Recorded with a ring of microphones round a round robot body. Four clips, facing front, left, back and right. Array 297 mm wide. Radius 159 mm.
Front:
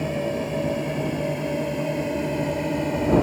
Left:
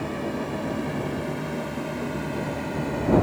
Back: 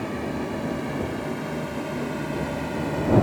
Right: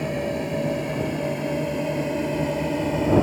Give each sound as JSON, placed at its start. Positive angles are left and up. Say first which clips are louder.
{"t": 0.0, "sound": "a drone", "louder": "right 3 dB, front 3 dB", "azimuth_deg": -40}